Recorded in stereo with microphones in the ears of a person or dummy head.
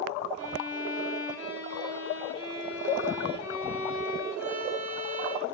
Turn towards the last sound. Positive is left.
turn(degrees=80)